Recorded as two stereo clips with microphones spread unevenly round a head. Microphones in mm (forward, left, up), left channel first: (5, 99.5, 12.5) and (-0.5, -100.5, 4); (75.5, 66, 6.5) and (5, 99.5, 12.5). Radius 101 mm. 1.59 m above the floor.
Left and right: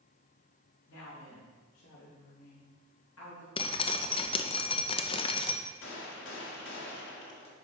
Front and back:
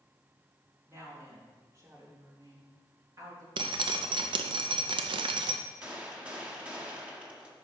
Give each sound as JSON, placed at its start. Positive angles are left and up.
{"t": 0.9, "sound": "a woman speaking", "azimuth_deg": 105, "distance_m": 4.5}
{"t": 3.6, "sound": "dripping", "azimuth_deg": 155, "distance_m": 0.7}
{"t": 5.8, "sound": "a gunshot", "azimuth_deg": 85, "distance_m": 1.8}